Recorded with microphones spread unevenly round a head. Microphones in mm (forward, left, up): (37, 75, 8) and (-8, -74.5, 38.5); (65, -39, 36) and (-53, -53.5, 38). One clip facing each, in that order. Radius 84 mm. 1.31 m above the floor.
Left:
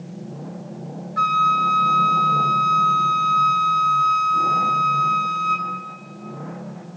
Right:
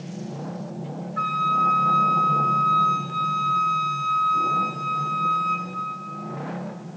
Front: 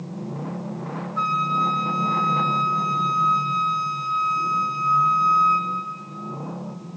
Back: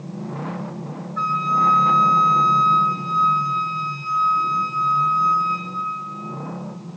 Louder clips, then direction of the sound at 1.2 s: Left 5 dB, back 3 dB; 75° left.